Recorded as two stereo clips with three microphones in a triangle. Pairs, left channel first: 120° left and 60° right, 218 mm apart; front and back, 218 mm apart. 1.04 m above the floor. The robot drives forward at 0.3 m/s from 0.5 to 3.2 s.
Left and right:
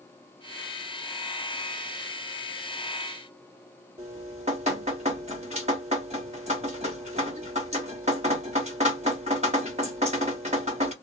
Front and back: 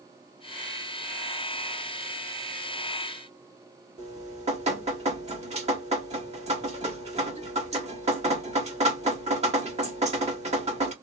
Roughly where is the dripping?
Behind right.